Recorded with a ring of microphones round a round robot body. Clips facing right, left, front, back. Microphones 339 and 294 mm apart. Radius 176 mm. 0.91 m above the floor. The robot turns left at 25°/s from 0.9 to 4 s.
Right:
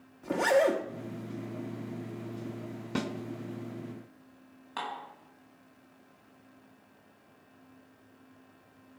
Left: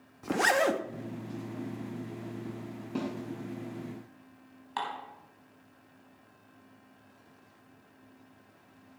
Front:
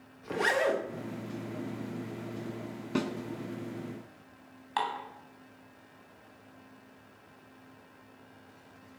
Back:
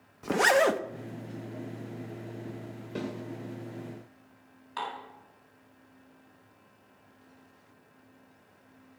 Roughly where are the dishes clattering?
Ahead.